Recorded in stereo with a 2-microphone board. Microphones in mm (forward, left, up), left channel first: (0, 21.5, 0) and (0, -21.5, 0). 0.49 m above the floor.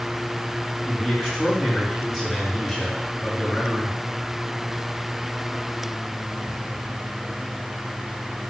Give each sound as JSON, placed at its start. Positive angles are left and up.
{"t": 0.9, "sound": "a man speaking", "side_deg": 0, "distance_m": 3.5}